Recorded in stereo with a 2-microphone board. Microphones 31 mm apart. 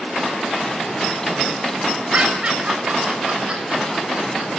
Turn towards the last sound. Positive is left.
turn(degrees=-40)  # may be behind; listen again after turning